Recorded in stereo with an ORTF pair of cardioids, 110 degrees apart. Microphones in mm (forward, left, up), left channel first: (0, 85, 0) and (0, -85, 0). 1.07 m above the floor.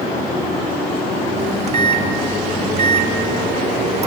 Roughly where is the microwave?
Ahead right.